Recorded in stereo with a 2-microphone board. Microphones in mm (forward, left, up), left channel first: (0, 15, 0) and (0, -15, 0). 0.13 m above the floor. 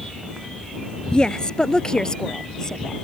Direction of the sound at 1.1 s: 30° left (ahead or behind).